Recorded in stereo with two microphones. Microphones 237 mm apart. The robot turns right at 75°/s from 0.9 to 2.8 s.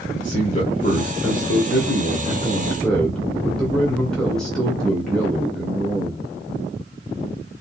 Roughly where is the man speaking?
Ahead left.